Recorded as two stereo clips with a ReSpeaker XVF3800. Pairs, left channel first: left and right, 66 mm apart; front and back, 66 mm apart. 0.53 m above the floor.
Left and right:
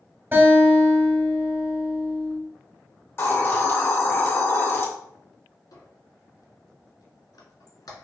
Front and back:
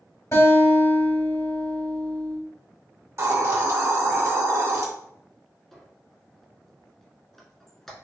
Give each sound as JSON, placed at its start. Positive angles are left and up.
{"t": 0.3, "sound": "a guitar", "azimuth_deg": -35, "distance_m": 2.0}
{"t": 3.2, "sound": "a hiss", "azimuth_deg": 140, "distance_m": 0.9}
{"t": 5.7, "sound": "a squeak", "azimuth_deg": 85, "distance_m": 1.0}